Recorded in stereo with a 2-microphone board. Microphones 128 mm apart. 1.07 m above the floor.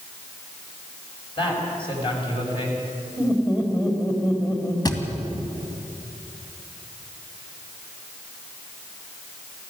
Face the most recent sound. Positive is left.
turn(degrees=30)  # may be behind; listen again after turning